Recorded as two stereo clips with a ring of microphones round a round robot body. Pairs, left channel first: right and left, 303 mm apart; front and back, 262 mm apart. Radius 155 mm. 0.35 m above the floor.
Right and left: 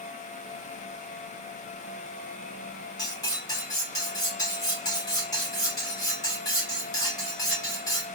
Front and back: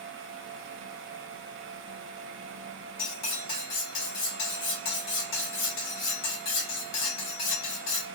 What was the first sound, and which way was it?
Cutlery clinking, 15° right.